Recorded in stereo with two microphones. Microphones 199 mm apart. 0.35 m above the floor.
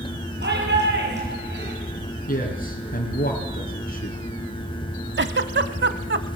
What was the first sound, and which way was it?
A shout, 60° right (ahead or behind).